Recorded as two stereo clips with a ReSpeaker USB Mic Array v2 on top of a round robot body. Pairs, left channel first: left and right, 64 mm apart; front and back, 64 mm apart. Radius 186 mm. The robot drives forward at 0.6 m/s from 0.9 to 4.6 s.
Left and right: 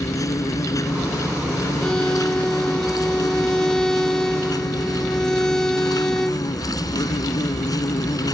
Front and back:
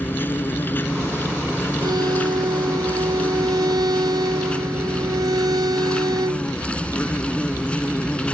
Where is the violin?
170° left.